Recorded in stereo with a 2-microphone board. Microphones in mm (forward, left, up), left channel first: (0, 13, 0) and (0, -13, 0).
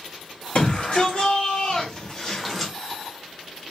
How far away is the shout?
About 2.5 m.